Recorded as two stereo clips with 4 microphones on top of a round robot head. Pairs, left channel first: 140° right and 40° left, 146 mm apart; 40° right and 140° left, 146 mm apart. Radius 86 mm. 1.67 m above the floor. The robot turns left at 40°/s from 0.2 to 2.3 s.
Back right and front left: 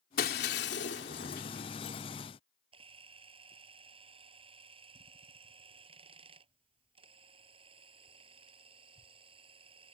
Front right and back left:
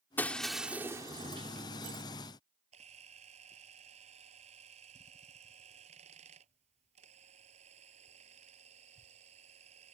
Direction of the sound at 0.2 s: 115° right.